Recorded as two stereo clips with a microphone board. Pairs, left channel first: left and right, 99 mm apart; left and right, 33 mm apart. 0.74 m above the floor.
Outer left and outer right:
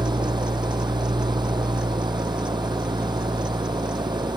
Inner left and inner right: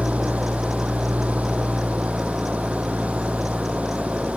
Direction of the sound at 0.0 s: 50° right (ahead or behind).